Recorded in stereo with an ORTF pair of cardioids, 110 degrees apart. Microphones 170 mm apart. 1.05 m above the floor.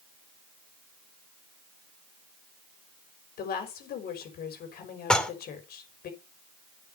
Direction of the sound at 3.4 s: 65° left.